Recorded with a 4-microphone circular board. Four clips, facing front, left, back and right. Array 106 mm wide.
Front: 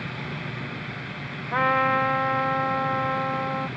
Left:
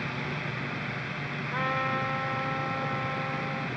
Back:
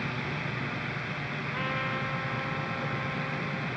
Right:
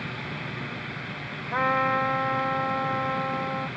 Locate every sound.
1.5 s a trumpet: 30° right